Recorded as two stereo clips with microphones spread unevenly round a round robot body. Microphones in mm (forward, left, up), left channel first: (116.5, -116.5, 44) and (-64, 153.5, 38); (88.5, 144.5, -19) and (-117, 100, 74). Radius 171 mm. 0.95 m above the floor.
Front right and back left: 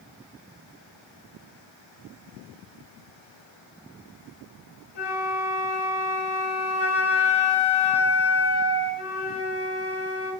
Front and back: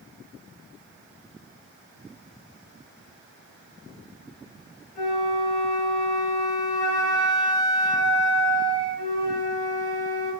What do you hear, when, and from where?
5.0 s a flute: 65° right, 3 m